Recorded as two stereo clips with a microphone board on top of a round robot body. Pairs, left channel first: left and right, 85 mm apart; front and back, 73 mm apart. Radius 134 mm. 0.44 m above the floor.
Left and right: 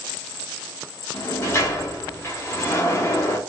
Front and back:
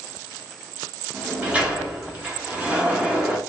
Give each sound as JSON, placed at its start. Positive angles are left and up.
{"t": 1.1, "sound": "a sliding door", "azimuth_deg": 120, "distance_m": 1.6}